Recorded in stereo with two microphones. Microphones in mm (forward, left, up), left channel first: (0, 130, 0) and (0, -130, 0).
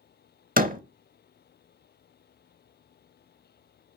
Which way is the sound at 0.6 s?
35° right (ahead or behind).